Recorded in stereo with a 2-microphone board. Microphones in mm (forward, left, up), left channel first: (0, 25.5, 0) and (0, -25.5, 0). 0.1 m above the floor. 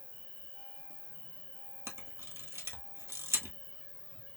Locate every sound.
0.0 s an insect: 45° left (ahead or behind), 1.6 m
1.9 s a camera shutter: 65° right (ahead or behind), 1.5 m